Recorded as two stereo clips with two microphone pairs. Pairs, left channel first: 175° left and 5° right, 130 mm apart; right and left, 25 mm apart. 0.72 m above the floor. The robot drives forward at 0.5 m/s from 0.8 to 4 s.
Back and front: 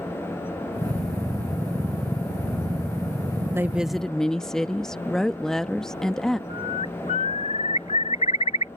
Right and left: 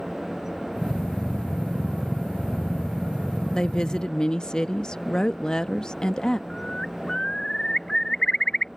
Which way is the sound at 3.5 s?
65° right.